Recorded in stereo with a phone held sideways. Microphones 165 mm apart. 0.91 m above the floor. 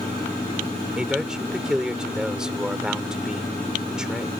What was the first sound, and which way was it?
A man speaking, 5° right (ahead or behind).